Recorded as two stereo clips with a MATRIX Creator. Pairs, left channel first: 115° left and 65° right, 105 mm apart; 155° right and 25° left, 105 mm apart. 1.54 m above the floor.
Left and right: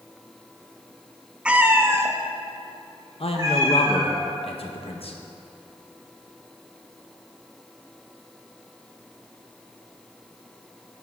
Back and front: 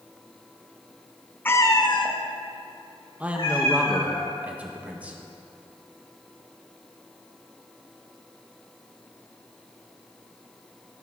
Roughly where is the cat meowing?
Behind right.